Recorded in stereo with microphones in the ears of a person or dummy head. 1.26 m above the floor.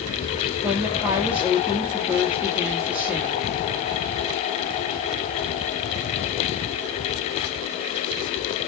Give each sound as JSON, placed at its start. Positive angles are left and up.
{"t": 0.6, "sound": "a woman speaking", "side_deg": -5, "distance_m": 2.0}